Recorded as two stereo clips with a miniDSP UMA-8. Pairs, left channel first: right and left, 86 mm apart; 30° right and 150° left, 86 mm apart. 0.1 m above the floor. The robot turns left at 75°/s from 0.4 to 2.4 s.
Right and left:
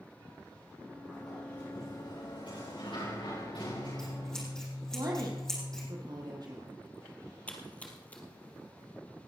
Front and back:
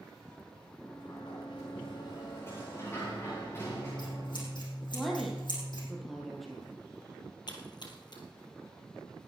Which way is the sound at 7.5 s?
20° right.